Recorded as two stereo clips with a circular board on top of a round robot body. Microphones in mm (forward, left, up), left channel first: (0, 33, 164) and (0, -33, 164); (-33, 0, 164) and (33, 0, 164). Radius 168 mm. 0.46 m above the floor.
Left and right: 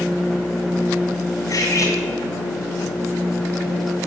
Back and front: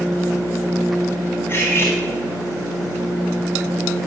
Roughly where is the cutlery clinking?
Behind left.